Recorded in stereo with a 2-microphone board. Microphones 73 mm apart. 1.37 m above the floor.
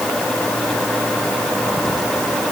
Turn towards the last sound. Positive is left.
No sound to turn to.